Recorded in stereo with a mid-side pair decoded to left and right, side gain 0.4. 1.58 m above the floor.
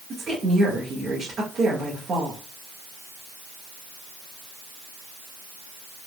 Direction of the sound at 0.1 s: 45° right.